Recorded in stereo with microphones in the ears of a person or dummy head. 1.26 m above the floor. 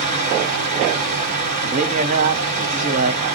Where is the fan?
55° right (ahead or behind), 1.4 m.